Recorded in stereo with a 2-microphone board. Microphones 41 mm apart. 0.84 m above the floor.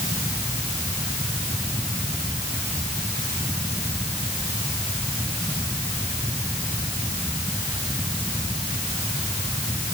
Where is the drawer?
I don't hear a drawer.